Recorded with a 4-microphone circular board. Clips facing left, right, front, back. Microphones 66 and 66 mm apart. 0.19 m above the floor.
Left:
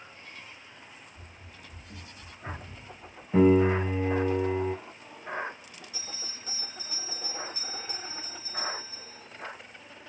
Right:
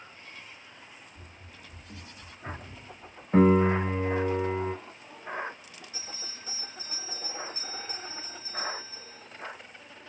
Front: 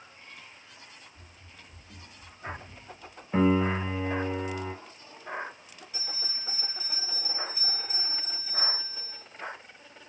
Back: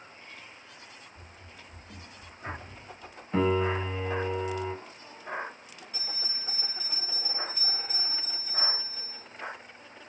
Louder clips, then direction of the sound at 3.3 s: Even, front 2 dB; 75° right.